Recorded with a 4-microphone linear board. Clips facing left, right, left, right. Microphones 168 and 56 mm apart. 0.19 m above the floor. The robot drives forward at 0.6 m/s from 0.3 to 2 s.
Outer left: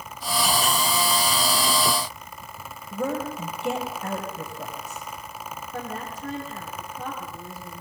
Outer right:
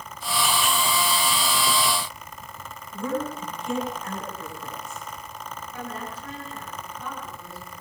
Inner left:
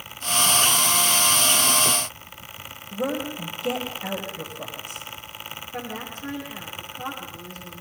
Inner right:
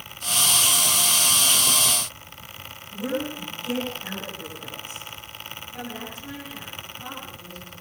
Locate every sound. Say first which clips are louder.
2.9 s a woman speaking: outer left 1 dB, inner left 1 dB; 70° left (ahead or behind), 7 m
5.7 s a woman speaking: outer left 2 dB, inner left 2 dB; 45° left (ahead or behind), 7.5 m